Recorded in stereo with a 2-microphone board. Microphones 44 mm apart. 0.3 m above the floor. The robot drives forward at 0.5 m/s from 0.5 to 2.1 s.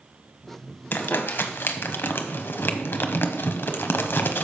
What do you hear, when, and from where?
0.9 s crumpling: 50° left (ahead or behind), 0.9 m; by 4.4 s 55° left (ahead or behind), 0.8 m